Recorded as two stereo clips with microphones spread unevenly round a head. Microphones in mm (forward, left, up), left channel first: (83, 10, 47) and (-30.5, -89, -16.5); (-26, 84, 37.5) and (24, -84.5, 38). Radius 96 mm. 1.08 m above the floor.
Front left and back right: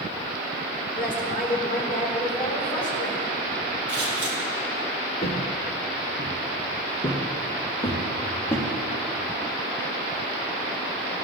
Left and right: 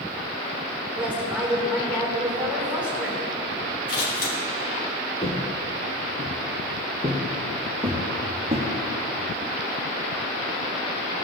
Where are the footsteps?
40° left, 1.9 m; by 8.7 s straight ahead, 4 m.